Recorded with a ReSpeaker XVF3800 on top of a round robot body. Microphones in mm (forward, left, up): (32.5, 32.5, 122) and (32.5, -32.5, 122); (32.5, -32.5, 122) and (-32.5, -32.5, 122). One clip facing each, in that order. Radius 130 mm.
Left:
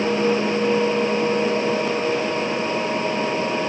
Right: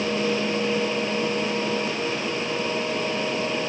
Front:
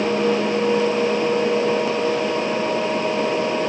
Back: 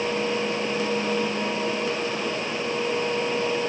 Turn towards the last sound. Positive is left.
No sound to turn to.